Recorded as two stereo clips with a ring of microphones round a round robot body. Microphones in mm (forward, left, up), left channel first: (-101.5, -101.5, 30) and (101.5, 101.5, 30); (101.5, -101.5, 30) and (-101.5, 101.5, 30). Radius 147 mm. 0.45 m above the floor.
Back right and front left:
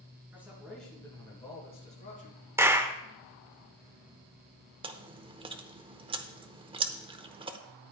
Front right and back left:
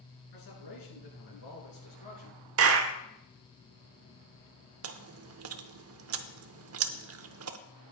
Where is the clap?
125° left, 0.9 m.